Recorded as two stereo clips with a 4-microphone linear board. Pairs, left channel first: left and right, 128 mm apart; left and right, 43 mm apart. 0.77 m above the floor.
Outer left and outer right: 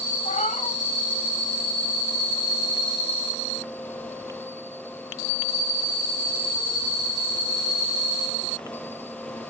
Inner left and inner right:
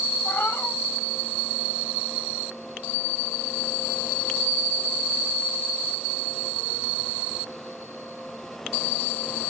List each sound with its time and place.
0.2 s a cat meowing: 80° left, 1.7 m